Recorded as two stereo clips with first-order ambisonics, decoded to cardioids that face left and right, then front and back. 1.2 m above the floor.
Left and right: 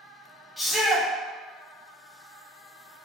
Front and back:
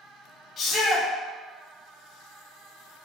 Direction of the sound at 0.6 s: 15° left.